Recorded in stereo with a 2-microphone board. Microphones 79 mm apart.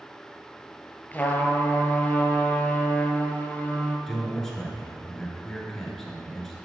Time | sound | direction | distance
1.1 | a trumpet | 20° left (ahead or behind) | 1.1 m
4.1 | a man speaking | centre (ahead or behind) | 1.7 m